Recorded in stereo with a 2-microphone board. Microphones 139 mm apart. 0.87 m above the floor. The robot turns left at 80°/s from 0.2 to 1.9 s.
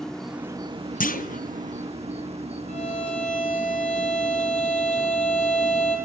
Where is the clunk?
80° left, 0.6 m; by 1.4 s 70° left (ahead or behind), 0.6 m.